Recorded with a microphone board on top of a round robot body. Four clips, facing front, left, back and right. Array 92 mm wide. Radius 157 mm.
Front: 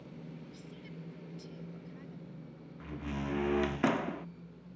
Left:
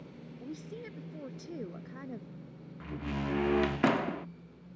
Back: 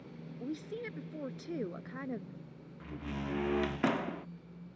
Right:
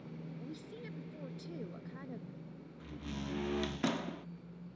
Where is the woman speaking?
165° left.